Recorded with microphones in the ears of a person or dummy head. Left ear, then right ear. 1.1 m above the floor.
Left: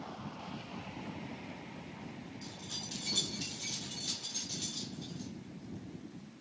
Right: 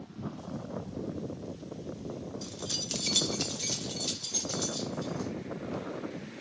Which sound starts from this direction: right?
Keys jangling, at 2.4 s.